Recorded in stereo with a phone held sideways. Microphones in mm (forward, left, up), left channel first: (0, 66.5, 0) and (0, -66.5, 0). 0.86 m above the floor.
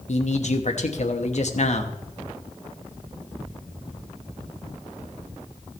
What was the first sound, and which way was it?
A man speaking, 60° left (ahead or behind).